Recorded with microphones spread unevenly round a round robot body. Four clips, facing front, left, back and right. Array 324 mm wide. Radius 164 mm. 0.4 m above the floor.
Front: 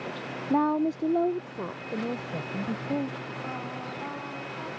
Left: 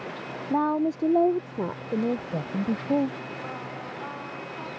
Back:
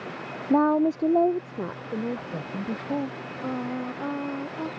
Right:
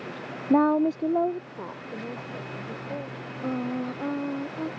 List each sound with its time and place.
0.5 s a woman speaking: 115° right; by 3.3 s 95° left
3.4 s singing: 125° right